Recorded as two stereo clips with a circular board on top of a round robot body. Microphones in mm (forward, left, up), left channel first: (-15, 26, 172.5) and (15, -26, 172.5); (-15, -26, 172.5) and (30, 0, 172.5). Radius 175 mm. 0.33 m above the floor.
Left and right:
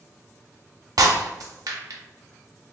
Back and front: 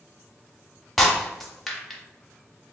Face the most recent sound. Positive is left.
turn(degrees=-60)